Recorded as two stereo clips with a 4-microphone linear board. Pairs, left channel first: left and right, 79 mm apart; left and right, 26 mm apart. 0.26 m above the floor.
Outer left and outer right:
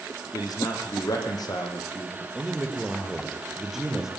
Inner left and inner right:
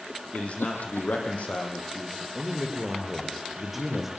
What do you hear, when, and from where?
0.3 s a man speaking: 55° left (ahead or behind), 8.5 m
2.4 s a man speaking: 5° right (ahead or behind), 6.5 m